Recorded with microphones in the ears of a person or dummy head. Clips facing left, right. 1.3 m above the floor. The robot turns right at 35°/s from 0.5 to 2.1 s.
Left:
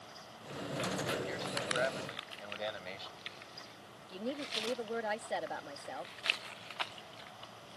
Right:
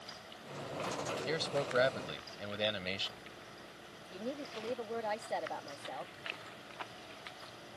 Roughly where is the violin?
I don't hear a violin.